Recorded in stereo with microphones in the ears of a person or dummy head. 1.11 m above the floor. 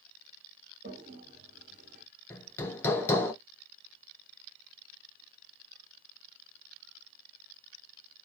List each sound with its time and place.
0.8 s a toilet flushing: 60° right (ahead or behind), 1.1 m
2.3 s hammering: 10° left (ahead or behind), 0.6 m